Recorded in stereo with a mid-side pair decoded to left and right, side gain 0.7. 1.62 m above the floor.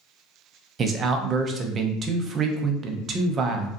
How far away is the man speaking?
About 0.6 m.